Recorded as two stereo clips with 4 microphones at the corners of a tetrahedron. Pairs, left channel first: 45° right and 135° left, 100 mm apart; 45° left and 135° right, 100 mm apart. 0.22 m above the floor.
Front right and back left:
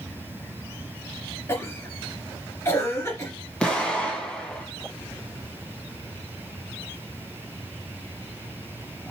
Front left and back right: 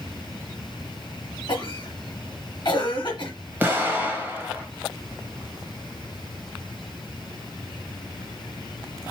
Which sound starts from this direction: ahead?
A cough, at 1.5 s.